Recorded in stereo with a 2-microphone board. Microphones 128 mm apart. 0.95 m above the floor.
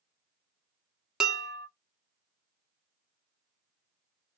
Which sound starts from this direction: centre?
Dishes clattering, at 1.2 s.